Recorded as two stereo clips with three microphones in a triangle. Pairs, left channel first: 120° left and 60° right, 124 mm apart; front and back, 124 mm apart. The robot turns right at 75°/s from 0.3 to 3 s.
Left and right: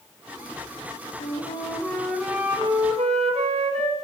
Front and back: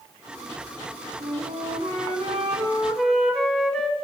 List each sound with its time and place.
1.2 s a flute: 140° left, 1.9 m; by 4.0 s 85° right, 1.9 m